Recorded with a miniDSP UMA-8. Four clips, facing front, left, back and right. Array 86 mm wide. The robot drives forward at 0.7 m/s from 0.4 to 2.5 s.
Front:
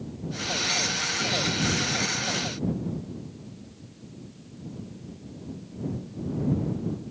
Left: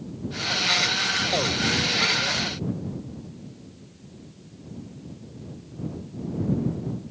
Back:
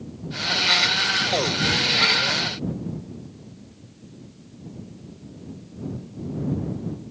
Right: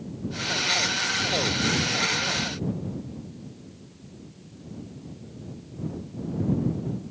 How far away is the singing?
I don't hear singing.